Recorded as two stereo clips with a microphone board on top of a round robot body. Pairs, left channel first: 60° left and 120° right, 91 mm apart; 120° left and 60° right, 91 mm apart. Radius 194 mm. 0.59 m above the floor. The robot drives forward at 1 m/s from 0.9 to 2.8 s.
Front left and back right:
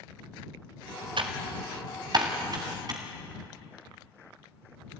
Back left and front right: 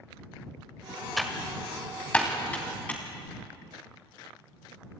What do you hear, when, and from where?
1.2 s typing on a keyboard: 150° right, 1.3 m; by 3.0 s 165° right, 3 m